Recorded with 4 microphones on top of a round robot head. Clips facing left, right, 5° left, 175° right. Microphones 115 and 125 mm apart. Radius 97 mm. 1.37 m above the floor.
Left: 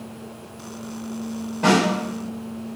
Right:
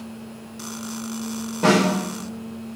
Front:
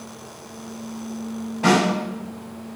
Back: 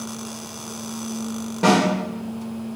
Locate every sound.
1.6 s a snare drum: 155° right, 1.6 m